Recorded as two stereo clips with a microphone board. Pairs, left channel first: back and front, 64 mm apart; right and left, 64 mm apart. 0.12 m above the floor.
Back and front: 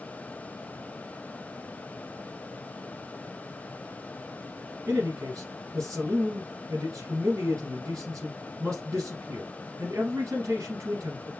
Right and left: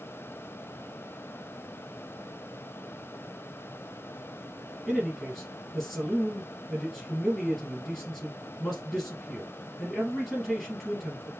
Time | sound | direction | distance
4.9 | a man speaking | 5° right | 3 m